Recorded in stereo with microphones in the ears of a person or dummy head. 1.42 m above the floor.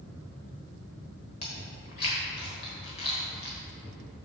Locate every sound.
1.4 s chewing: 25° left (ahead or behind), 1.3 m